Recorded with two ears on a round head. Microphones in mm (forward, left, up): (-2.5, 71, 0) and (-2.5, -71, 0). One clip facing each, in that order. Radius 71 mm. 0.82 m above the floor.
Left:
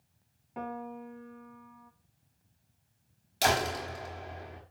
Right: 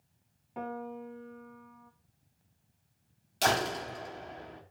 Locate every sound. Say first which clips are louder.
0.6 s a piano: even; centre (ahead or behind), 1.1 m
3.4 s a door slam: left 1 dB; 5° left (ahead or behind), 3 m